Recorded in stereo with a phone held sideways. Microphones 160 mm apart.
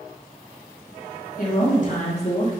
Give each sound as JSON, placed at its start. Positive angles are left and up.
{"t": 1.4, "sound": "a woman speaking", "side_deg": 60, "distance_m": 1.5}